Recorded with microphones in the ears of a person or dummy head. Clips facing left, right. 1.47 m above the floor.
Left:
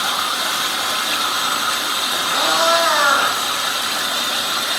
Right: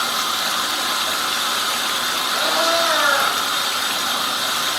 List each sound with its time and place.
2.3 s a cat meowing: 85° left, 9 m